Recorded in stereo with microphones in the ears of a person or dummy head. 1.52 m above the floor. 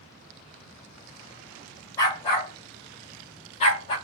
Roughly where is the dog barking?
Centre.